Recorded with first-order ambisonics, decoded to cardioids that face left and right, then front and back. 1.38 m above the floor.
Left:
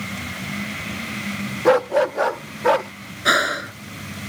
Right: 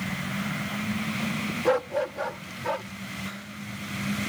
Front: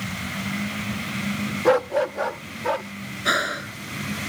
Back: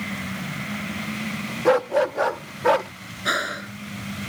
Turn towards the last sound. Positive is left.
turn(degrees=85)